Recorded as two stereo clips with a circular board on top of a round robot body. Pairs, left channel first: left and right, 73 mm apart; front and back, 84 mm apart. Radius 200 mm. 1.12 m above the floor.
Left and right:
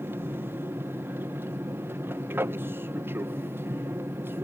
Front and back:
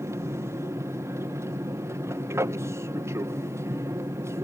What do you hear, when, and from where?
0.0 s an aircraft: 135° right